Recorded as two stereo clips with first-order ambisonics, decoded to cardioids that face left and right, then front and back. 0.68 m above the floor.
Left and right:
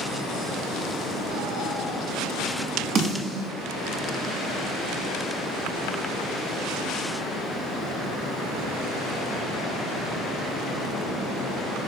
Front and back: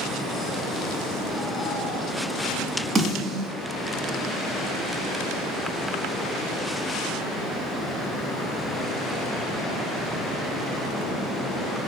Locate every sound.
3.0 s a snare drum: 115° right, 0.8 m